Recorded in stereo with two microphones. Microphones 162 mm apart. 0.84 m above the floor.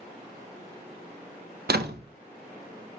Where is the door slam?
75° right (ahead or behind), 0.7 m.